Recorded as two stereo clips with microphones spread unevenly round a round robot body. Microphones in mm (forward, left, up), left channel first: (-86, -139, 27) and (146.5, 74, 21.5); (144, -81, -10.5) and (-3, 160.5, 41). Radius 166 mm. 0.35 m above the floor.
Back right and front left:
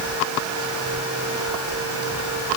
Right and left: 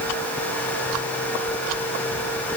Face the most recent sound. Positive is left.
No sound to turn to.